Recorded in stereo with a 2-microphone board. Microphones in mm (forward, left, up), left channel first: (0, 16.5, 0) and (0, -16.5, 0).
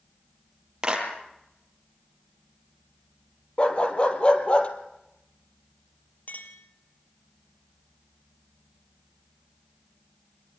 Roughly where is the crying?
I don't hear crying.